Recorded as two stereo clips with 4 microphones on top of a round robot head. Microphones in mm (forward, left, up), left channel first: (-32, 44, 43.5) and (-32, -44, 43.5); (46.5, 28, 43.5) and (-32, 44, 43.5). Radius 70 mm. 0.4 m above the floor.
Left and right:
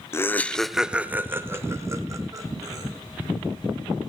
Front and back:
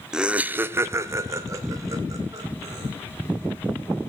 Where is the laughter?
95° left, 0.9 m; by 2.9 s 140° right, 2.5 m.